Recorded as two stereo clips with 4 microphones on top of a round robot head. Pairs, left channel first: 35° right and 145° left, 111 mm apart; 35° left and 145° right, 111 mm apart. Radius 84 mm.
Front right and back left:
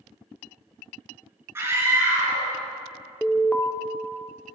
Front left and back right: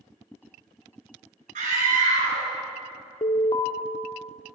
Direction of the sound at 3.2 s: 40° left.